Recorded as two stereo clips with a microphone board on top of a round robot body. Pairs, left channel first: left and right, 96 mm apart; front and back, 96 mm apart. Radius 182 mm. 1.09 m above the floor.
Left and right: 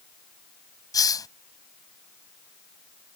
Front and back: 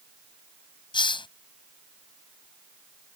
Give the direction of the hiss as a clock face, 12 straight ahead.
11 o'clock.